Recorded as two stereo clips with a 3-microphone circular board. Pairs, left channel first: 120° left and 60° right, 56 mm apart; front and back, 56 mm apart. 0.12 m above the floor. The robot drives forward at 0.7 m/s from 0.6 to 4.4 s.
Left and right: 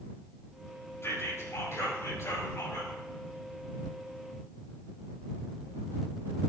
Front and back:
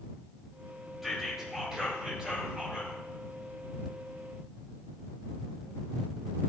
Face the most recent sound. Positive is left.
turn(degrees=125)